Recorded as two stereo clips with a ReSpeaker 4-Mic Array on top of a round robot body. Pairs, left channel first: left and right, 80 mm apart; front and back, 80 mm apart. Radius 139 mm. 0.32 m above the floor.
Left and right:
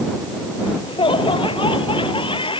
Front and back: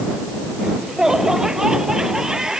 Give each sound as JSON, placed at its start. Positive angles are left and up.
{"t": 0.6, "sound": "laughter", "azimuth_deg": 95}